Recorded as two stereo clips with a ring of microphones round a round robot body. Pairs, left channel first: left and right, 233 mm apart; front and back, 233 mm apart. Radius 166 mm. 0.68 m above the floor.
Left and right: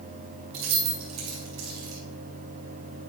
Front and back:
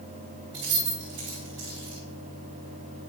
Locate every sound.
0.5 s keys jangling: 120° right, 3 m